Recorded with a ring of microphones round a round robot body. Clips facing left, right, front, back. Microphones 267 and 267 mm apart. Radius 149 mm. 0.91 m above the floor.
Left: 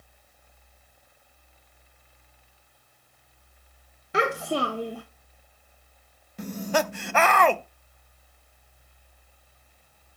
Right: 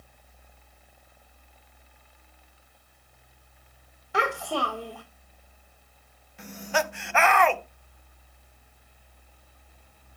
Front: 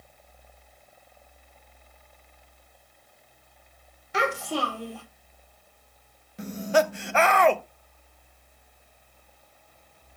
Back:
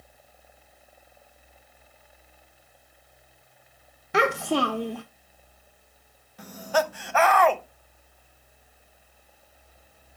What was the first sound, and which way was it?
A child speaking, 160° left.